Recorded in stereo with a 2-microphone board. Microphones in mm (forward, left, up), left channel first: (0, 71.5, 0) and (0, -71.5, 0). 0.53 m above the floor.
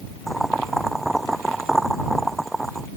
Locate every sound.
0.3 s boiling: centre (ahead or behind)